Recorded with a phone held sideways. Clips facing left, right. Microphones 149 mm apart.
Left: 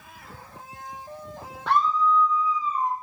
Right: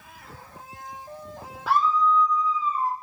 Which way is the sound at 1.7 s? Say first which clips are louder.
Even; 5° right (ahead or behind).